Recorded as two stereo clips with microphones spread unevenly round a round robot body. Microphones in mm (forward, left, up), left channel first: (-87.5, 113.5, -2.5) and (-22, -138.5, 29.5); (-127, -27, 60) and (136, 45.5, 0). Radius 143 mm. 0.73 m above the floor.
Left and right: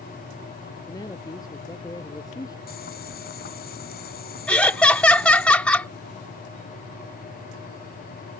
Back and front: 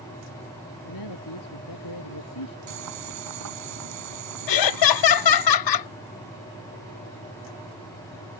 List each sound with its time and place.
0.8 s a man speaking: straight behind
2.7 s boiling: 45° left
4.5 s laughter: 170° right